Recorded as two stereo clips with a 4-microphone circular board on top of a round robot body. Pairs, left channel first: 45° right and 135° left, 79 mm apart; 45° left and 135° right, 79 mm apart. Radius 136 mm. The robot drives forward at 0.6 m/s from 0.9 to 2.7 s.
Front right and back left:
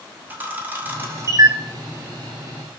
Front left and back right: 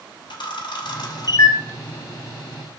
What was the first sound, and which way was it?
A camera shutter, 65° left.